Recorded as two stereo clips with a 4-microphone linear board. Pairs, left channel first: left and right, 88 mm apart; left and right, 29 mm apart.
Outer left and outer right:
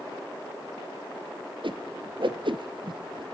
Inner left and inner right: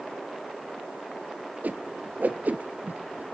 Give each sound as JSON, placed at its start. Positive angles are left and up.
{"t": 1.6, "sound": "a whoosh", "side_deg": -65, "distance_m": 0.6}